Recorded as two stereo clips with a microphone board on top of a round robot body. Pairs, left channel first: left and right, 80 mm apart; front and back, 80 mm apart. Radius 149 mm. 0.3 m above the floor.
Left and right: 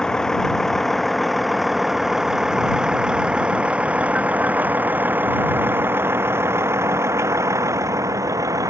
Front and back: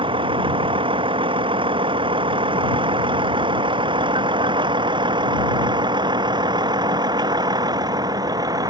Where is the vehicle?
175° left; by 8.7 s 140° right.